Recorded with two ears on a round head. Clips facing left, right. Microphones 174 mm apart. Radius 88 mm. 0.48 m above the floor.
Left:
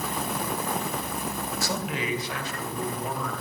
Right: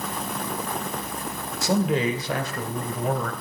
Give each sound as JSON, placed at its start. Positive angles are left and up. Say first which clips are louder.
{"t": 1.6, "sound": "a man speaking", "louder": "right 11 dB", "side_deg": -20, "distance_m": 1.7}